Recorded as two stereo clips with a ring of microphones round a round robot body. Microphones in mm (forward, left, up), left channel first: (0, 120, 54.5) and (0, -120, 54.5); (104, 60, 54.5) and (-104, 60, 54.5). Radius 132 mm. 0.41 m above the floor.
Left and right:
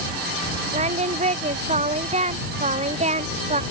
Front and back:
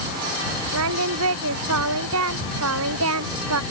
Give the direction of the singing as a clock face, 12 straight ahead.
5 o'clock.